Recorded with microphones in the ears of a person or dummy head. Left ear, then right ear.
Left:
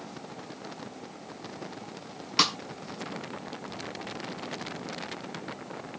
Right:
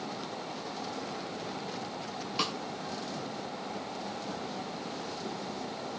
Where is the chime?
I don't hear a chime.